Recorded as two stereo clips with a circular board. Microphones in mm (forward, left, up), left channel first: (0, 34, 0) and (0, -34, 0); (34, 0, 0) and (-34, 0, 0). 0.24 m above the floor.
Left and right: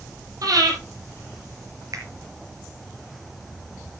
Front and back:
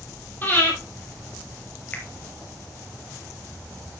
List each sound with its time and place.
0.4 s breathing: 60° right, 5.5 m
1.9 s a finger snap: 60° right, 4 m